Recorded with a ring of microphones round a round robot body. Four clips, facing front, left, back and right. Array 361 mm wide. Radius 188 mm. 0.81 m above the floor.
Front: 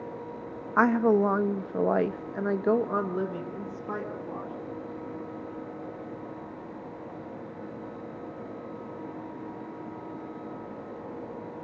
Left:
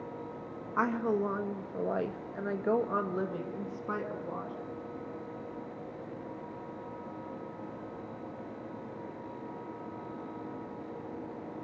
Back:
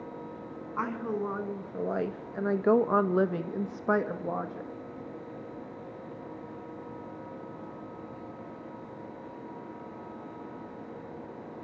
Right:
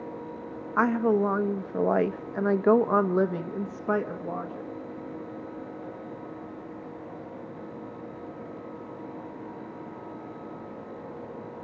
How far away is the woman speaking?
About 1.4 m.